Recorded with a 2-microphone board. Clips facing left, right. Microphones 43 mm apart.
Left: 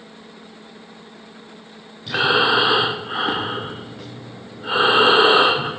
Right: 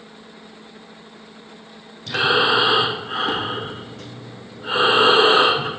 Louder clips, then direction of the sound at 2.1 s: Even; 15° left (ahead or behind).